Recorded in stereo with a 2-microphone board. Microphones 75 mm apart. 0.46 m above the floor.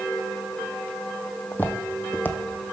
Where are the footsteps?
25° left (ahead or behind), 0.9 m.